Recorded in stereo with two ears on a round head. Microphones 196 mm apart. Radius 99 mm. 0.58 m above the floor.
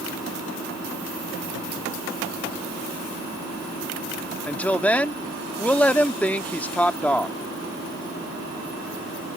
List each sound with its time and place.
4.5 s a woman speaking: 5° left (ahead or behind)